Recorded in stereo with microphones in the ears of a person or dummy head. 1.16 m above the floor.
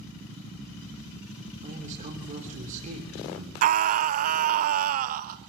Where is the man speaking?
45° right (ahead or behind), 3 m.